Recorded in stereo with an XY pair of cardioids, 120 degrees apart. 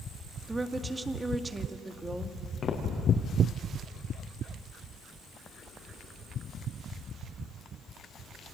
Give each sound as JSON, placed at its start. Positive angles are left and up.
{"t": 0.5, "sound": "a woman speaking", "azimuth_deg": -20, "distance_m": 1.6}
{"t": 2.6, "sound": "footsteps", "azimuth_deg": 40, "distance_m": 5.0}